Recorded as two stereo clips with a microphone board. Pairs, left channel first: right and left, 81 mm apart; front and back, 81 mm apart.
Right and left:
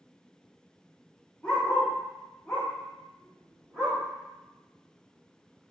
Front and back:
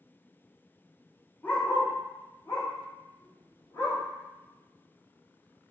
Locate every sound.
1.4 s a dog barking: 30° right, 0.7 m; by 4.0 s 5° right, 1.7 m